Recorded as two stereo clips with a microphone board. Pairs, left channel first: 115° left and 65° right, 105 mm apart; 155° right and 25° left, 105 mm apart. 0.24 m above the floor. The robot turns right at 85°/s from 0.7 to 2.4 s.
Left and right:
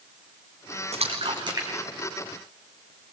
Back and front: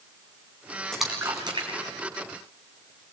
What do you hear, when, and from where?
0.9 s a splash: 70° right, 2.5 m; by 2.9 s 55° left, 2.5 m